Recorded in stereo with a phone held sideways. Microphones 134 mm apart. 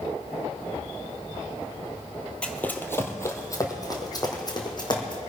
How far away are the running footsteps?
About 1.4 m.